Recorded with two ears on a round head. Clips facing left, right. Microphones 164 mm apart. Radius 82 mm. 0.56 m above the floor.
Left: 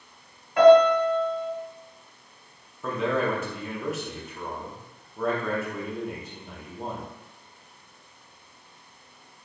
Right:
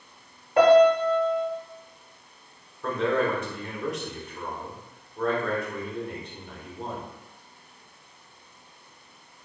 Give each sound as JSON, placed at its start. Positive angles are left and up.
{"t": 0.6, "sound": "a piano", "side_deg": -30, "distance_m": 0.8}
{"t": 2.8, "sound": "a man speaking", "side_deg": 5, "distance_m": 0.8}